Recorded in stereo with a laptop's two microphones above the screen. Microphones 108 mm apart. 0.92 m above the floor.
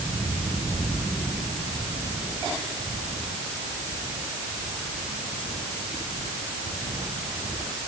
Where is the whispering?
I don't hear whispering.